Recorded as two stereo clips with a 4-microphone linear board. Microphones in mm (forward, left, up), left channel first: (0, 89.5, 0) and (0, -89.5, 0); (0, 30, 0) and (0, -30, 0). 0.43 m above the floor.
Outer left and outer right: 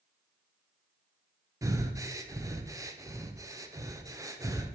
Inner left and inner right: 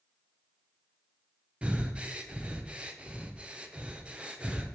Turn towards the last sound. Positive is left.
turn(degrees=-20)  # may be behind; listen again after turning